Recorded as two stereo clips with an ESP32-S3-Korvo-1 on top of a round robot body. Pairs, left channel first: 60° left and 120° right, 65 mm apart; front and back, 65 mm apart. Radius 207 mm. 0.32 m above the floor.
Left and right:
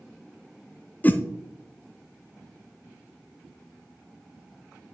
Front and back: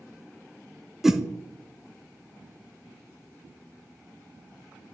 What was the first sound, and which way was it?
A whoosh, 100° left.